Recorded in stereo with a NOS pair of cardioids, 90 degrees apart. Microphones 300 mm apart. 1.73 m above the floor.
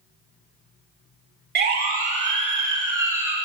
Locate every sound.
1.6 s a siren: 35° right, 3 m; by 3.4 s 5° right, 3.5 m